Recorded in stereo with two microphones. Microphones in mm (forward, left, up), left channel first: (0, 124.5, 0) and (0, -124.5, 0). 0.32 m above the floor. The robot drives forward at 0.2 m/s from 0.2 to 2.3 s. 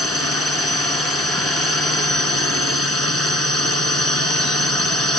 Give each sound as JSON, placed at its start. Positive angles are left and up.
{"t": 0.0, "sound": "a drone", "side_deg": -70}